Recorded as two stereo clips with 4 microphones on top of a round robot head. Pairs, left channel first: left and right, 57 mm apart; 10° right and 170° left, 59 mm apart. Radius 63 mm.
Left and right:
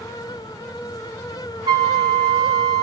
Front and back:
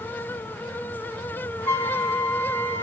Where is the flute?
70° right, 0.5 m.